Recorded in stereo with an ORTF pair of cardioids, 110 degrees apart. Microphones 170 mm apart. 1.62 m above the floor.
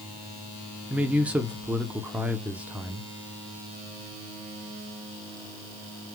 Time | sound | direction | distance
0.9 | a man speaking | 10° right | 1.1 m